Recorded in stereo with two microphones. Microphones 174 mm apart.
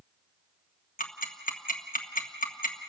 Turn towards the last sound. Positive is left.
turn(degrees=50)  # may be behind; listen again after turning